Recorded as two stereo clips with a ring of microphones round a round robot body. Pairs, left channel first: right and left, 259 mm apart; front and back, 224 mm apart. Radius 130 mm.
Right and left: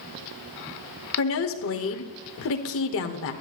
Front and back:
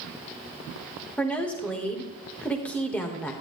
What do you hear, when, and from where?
1.2 s a woman speaking: 85° right, 1.2 m